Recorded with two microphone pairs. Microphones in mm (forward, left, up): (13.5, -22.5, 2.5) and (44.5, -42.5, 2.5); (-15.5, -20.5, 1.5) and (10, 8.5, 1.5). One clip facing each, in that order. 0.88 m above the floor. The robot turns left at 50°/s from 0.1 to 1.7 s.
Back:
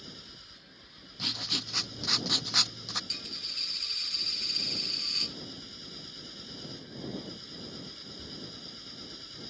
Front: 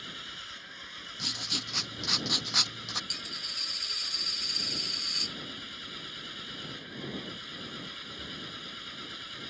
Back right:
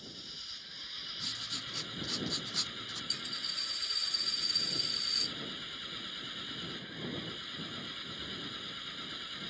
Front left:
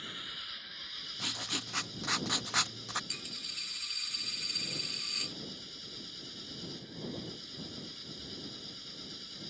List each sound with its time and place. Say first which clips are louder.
0.0 s an engine running: front 8 dB, front left 6 dB; 5° left; by 9.5 s 75° right
1.2 s writing: back 1 dB, front left 5 dB; 80° left; by 3.0 s 55° left
3.1 s a dropped coin: front 2 dB, back right 3 dB; 70° left